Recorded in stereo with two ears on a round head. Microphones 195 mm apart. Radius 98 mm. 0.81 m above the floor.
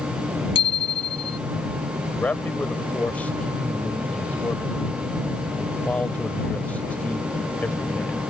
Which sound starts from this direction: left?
A bicycle bell, at 0.6 s.